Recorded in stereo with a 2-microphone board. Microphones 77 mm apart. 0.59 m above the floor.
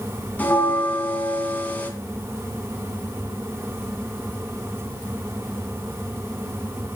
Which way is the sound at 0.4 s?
20° left (ahead or behind).